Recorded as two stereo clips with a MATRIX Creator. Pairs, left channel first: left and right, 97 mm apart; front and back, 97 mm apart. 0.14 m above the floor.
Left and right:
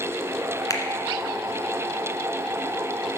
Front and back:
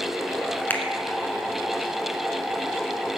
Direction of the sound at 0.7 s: 60° left.